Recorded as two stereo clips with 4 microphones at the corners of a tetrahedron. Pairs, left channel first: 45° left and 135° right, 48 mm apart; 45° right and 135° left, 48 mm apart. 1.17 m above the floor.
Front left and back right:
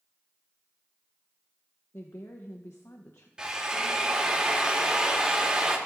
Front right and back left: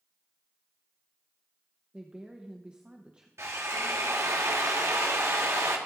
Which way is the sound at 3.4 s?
150° left.